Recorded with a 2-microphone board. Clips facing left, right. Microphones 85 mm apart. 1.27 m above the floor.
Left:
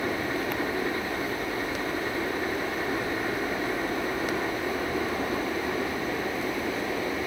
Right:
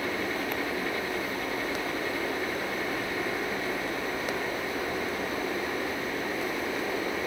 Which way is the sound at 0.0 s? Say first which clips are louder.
Left 2 dB; 30° left (ahead or behind).